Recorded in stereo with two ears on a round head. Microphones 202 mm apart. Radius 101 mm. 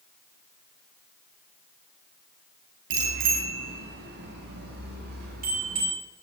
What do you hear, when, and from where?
2.9 s a bicycle bell: 60° right (ahead or behind), 8 m; by 5.9 s 45° right (ahead or behind), 8 m